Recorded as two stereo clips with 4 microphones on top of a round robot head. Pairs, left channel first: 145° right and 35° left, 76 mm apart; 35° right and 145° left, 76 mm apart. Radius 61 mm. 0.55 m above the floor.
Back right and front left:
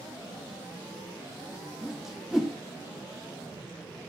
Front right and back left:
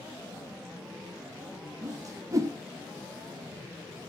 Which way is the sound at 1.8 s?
120° left.